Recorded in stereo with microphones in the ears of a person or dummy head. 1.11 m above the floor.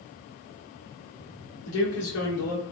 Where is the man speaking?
80° left, 1.9 m.